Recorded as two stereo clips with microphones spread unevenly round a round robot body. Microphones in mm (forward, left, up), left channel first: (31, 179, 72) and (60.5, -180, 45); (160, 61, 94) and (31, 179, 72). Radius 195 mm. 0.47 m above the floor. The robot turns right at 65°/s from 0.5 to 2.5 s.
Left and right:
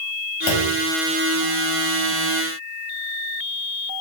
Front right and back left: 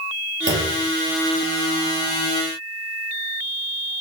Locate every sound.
0.5 s a clunk: 130° left, 4 m; by 0.8 s 150° left, 4 m